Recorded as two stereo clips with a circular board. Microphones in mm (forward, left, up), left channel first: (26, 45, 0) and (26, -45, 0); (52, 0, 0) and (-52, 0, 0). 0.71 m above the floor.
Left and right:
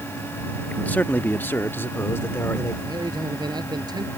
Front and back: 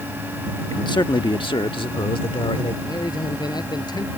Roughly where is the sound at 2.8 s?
Ahead right.